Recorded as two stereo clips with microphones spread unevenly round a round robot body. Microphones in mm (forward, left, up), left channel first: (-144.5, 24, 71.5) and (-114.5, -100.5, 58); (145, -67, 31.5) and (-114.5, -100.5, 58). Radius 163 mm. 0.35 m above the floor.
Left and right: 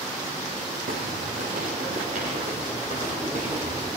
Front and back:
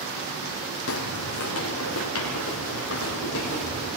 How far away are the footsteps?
About 1.0 m.